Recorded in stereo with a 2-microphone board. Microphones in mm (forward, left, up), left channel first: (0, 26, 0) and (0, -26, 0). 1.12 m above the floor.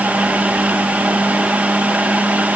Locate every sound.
Only background noise.